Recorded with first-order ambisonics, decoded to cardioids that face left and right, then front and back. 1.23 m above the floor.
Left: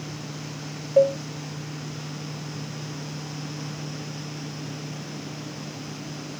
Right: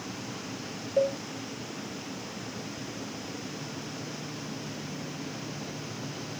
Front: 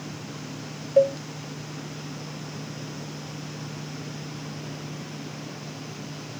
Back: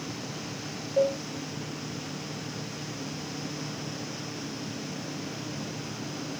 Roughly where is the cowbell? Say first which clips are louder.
Left 8 dB, front 6 dB; ahead left.